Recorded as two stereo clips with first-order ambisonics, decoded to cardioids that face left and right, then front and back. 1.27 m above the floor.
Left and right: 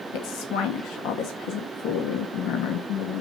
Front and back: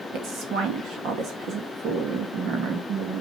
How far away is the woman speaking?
About 1.5 m.